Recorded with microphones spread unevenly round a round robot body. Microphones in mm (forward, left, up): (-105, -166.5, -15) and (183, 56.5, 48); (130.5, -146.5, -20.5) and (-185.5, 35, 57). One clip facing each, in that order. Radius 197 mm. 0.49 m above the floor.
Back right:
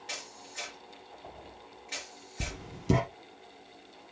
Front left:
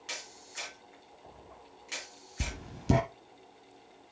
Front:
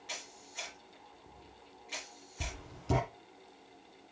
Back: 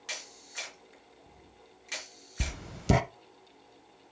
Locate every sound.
0.1 s a camera shutter: 105° left, 3.5 m
2.4 s writing: 115° left, 0.7 m